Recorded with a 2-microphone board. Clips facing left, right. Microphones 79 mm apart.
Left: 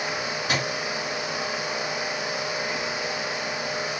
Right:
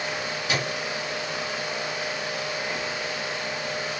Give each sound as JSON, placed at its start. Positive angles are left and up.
{"t": 0.5, "sound": "a microwave", "side_deg": 45, "distance_m": 1.5}